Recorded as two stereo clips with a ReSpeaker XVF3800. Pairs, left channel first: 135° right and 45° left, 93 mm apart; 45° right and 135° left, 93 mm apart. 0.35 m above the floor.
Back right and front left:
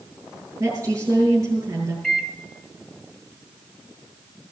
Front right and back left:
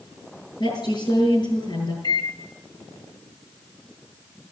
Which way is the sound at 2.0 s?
50° right.